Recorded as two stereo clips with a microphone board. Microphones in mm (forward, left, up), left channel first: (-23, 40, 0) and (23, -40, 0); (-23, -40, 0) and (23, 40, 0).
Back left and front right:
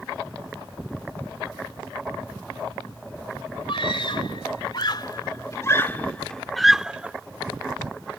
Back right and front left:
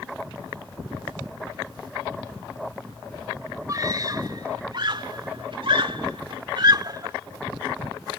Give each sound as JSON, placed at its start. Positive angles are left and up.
{"t": 3.7, "sound": "a scream", "azimuth_deg": 105}